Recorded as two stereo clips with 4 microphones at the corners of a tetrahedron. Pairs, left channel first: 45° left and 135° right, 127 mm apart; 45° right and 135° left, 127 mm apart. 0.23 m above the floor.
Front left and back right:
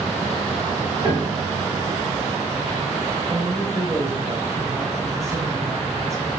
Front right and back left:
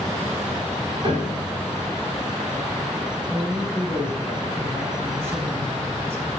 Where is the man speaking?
175° right, 1.1 m.